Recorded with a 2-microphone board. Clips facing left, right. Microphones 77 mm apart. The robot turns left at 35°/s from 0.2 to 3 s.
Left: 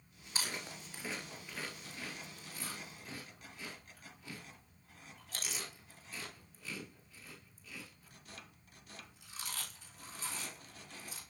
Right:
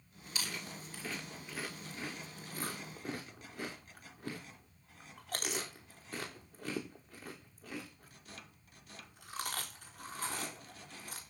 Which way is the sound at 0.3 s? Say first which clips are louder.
Left 1 dB; 35° left (ahead or behind).